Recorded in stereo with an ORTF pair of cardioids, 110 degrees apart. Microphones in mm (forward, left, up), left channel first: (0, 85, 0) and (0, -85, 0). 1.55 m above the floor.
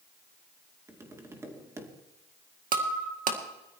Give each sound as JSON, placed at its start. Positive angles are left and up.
{"t": 0.9, "sound": "tapping", "azimuth_deg": -20, "distance_m": 2.5}
{"t": 2.7, "sound": "breaking glass", "azimuth_deg": -55, "distance_m": 2.0}